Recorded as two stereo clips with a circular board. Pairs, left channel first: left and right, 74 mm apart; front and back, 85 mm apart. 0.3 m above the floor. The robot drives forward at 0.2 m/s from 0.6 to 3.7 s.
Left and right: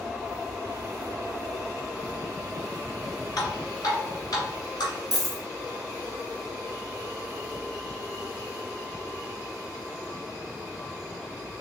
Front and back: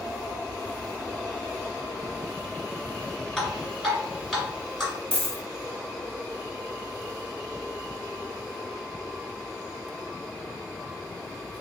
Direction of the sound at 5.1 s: 115° right.